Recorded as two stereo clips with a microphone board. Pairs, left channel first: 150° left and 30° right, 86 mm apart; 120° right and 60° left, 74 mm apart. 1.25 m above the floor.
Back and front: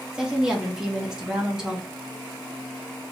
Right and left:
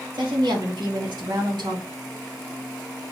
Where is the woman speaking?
55° left, 1.8 m.